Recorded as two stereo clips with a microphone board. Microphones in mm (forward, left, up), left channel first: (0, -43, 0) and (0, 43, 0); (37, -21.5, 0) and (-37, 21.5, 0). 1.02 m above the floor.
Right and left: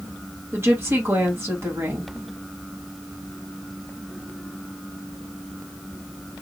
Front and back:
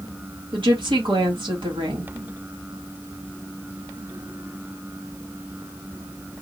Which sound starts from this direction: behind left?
A woman speaking, at 0.5 s.